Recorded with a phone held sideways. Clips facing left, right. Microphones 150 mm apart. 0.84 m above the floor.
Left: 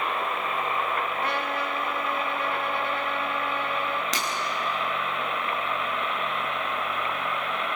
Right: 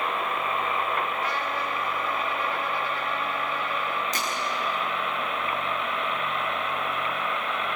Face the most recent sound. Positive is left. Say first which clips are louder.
# even
turn(degrees=85)